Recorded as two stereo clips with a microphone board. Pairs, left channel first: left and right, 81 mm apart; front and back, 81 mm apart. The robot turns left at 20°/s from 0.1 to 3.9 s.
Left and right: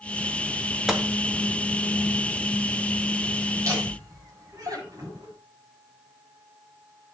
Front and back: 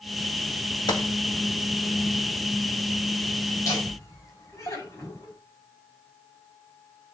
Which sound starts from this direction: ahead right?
Laughter, at 3.6 s.